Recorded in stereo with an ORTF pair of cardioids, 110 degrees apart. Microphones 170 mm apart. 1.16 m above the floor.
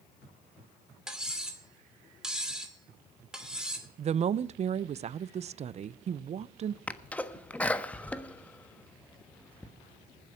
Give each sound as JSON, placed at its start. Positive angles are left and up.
{"t": 1.1, "sound": "cutlery clinking", "azimuth_deg": -5, "distance_m": 2.5}
{"t": 4.0, "sound": "a woman speaking", "azimuth_deg": -40, "distance_m": 0.6}
{"t": 6.9, "sound": "a sneeze", "azimuth_deg": 10, "distance_m": 1.3}